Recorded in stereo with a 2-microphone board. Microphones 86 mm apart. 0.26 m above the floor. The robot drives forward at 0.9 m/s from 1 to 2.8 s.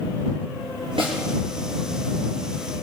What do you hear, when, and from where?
1.0 s a snare drum: 75° right (ahead or behind), 3 m